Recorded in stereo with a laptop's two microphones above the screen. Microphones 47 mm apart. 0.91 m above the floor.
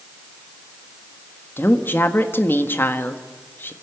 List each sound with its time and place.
1.6 s a woman speaking: 50° left (ahead or behind), 1.6 m